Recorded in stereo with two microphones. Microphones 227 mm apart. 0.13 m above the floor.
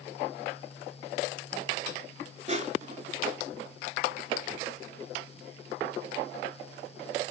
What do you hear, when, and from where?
2.5 s crushing: 30° right (ahead or behind), 0.8 m